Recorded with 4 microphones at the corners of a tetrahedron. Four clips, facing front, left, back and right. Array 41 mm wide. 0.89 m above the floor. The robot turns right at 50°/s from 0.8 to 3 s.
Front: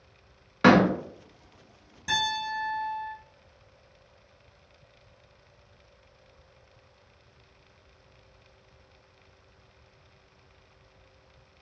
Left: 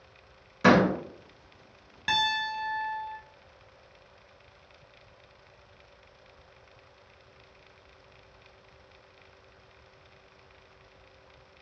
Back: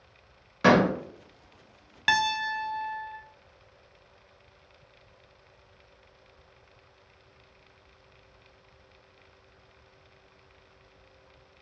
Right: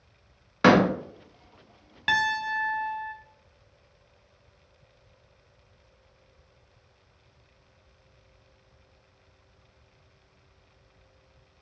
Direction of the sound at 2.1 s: 160° right.